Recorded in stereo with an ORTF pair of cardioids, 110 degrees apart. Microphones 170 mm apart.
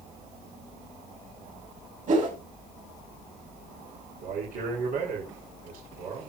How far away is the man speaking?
About 3.5 m.